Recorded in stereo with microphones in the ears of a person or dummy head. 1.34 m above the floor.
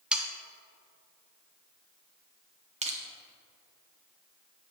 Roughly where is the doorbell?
No doorbell in this recording.